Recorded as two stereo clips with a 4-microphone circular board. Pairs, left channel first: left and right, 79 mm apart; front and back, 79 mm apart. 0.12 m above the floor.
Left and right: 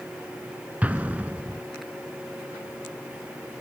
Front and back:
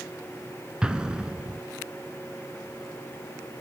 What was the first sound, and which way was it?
An explosion, 115° right.